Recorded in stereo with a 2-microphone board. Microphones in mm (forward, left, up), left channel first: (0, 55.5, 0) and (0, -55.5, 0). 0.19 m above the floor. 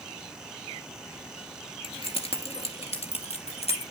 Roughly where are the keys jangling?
Left.